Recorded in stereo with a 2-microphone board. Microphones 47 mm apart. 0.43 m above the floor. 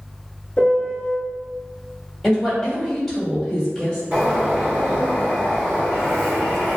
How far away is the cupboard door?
No cupboard door in this recording.